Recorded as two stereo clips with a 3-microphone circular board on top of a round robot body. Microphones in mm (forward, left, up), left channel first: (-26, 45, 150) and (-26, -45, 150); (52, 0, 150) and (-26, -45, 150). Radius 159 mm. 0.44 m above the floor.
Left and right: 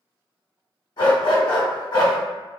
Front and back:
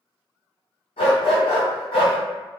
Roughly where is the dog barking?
Ahead left.